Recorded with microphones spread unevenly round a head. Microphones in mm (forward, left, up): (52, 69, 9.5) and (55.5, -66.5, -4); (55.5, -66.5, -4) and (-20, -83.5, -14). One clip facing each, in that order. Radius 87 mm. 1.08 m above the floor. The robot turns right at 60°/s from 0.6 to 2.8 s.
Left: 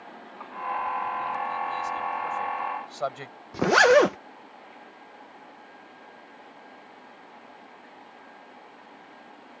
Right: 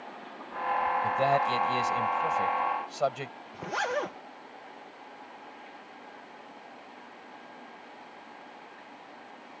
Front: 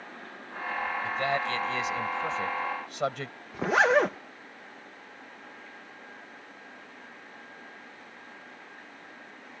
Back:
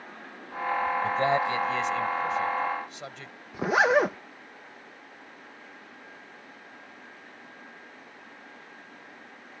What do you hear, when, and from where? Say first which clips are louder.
1.0 s a man speaking: right 5 dB, back 4 dB; 120° right; by 3.4 s 15° right
3.5 s a zipper: left 14 dB, even; 110° left